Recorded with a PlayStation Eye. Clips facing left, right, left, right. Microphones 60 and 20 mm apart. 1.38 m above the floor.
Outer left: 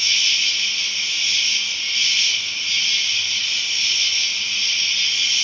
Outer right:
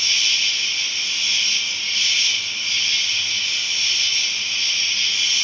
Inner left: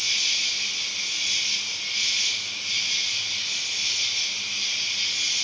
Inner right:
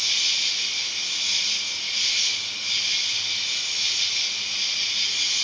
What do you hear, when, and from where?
0.0 s an insect: 75° right (ahead or behind), 1.9 m